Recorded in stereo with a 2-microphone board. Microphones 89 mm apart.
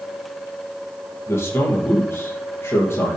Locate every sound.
1.3 s a man speaking: 25° left (ahead or behind), 5.5 m